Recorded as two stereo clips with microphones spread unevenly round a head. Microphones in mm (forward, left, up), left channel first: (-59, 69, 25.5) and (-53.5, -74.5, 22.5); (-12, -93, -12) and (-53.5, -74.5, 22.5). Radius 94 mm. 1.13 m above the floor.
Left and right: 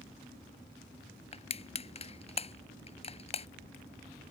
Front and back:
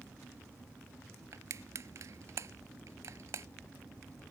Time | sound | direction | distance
1.3 | crushing | 140° left | ?